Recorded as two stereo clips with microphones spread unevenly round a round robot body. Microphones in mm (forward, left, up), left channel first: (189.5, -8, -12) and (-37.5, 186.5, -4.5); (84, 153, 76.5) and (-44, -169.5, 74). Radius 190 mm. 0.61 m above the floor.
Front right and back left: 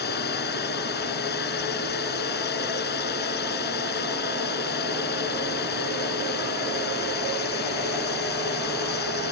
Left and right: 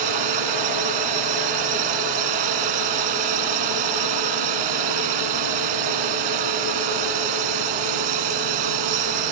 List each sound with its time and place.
0.0 s a drone: 105° right